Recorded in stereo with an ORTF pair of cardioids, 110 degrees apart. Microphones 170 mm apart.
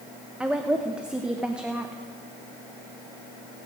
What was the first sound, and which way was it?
A woman speaking, 5° right.